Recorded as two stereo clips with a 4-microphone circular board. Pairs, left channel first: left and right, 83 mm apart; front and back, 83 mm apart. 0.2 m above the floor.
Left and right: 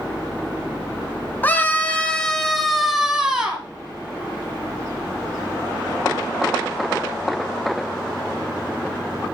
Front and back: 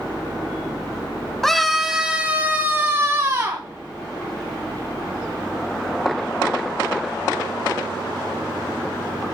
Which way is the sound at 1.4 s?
75° left.